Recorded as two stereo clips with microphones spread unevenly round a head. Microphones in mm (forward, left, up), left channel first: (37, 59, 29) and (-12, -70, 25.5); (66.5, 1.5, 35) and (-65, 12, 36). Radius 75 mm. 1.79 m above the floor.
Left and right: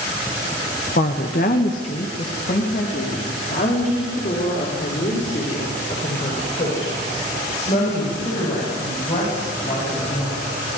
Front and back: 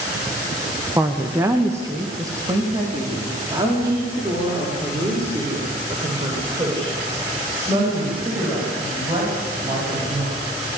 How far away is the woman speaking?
About 1.9 m.